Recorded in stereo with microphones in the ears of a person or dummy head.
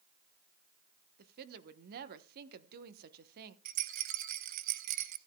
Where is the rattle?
40° right (ahead or behind), 0.9 m.